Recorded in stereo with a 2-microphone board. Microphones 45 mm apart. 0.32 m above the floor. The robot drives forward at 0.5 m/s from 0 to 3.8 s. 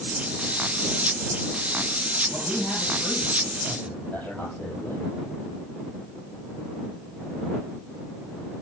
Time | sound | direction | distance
2.3 | a man speaking | 40° left (ahead or behind) | 8 m